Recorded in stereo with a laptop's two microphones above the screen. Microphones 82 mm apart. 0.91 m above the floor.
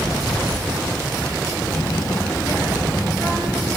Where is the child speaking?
65° left (ahead or behind), 0.7 m; by 3.7 s 25° left (ahead or behind), 2.5 m.